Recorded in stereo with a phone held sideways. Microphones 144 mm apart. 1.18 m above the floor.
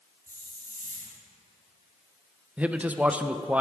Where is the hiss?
80° right, 3.5 m.